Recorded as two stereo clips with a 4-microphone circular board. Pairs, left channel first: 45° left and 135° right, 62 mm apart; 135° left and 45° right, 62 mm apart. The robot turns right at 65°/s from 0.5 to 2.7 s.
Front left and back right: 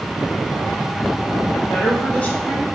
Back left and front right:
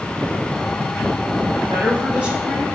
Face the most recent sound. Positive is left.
turn(degrees=40)